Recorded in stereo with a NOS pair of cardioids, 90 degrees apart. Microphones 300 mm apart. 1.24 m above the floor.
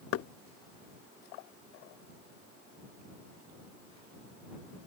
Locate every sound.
0.1 s knocking: 45° left